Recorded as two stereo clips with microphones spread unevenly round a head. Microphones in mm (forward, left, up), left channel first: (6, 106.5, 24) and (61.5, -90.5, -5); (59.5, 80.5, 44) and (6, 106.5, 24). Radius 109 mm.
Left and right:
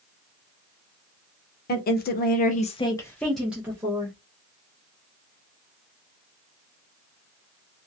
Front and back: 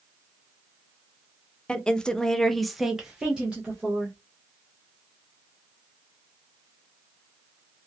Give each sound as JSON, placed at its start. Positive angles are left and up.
{"t": 1.7, "sound": "a woman speaking", "azimuth_deg": 60, "distance_m": 0.7}